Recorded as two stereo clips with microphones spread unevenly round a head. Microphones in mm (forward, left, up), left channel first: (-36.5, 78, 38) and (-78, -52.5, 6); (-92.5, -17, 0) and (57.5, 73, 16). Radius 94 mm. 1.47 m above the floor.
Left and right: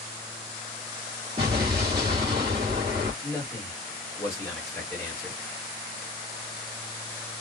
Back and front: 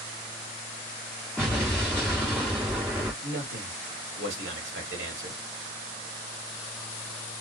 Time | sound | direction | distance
1.4 | an explosion | 60° right | 1.5 m
3.2 | a man speaking | 5° right | 1.1 m